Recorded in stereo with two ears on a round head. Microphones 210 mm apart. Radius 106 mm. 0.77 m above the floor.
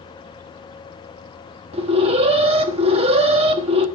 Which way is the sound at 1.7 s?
25° right (ahead or behind).